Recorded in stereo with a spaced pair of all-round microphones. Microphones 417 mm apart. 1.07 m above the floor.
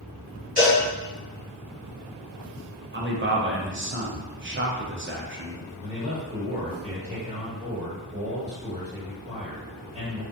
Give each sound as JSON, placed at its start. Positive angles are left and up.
{"t": 0.6, "sound": "a cowbell", "side_deg": -20, "distance_m": 1.7}
{"t": 2.9, "sound": "a man speaking", "side_deg": -30, "distance_m": 0.5}
{"t": 5.8, "sound": "a man speaking", "side_deg": -15, "distance_m": 1.6}